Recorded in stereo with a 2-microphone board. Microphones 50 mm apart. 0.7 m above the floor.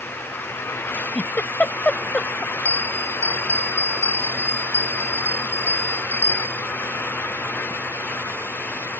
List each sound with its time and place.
0.9 s a giggle: 30° left (ahead or behind)
2.6 s a bell: 65° right (ahead or behind)